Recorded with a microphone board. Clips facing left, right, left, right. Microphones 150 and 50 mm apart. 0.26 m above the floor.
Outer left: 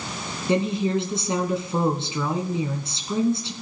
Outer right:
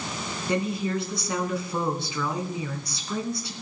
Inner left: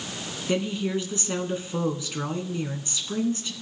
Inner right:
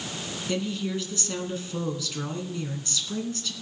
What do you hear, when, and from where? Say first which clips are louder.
0.5 s a woman speaking: outer left 5 dB, inner left 3 dB; 25° left (ahead or behind), 2.5 m